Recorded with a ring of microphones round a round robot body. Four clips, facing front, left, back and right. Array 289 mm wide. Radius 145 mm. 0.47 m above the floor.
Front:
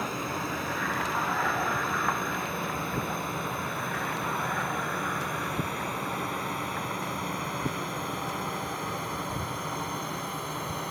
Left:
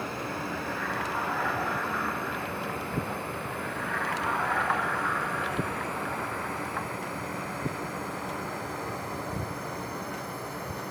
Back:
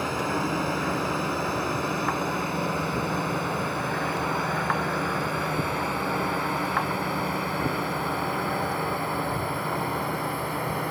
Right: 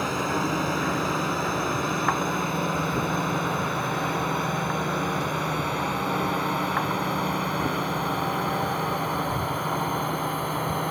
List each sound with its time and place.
0.0 s a drone: 115° right; by 10.9 s 110° right